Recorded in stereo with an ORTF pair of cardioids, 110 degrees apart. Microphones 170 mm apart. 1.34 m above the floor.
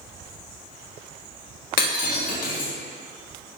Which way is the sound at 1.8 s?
65° left.